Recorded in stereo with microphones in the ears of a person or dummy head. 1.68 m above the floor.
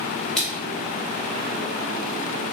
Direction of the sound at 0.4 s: Centre (ahead or behind).